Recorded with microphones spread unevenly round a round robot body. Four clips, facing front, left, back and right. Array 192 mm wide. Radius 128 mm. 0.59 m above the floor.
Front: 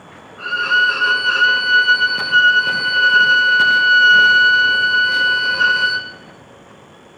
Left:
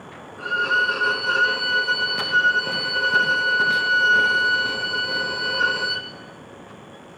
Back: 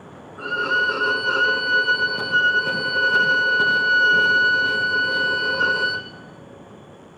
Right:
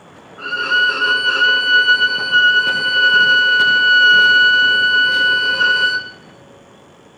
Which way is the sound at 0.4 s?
170° right.